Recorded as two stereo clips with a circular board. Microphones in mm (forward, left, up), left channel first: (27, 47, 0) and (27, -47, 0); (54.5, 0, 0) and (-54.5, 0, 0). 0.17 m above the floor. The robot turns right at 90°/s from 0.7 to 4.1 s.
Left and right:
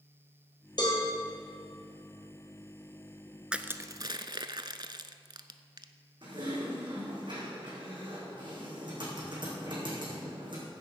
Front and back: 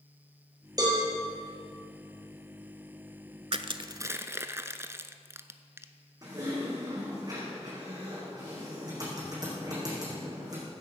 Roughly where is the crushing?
Behind.